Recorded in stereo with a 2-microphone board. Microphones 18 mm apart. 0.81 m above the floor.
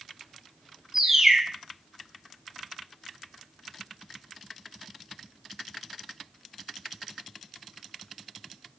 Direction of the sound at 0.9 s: 15° right (ahead or behind).